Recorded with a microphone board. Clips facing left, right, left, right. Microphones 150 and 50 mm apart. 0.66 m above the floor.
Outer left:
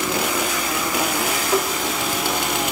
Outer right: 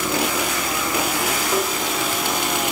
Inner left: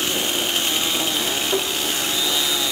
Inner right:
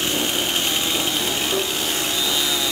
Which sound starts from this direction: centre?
Tapping, at 1.5 s.